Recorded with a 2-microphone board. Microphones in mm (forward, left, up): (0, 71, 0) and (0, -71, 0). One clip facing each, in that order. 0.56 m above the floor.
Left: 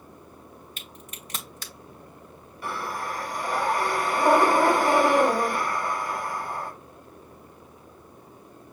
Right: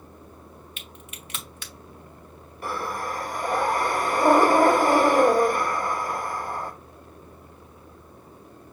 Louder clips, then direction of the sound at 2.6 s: Right 2 dB; 45° right (ahead or behind).